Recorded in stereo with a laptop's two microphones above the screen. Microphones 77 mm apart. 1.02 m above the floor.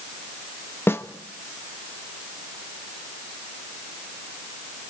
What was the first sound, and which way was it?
A snare drum, 30° left (ahead or behind).